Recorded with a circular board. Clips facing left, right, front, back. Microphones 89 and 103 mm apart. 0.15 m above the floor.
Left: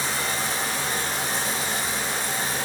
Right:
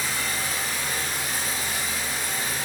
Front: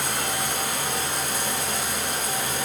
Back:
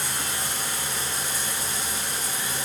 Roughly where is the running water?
Ahead left.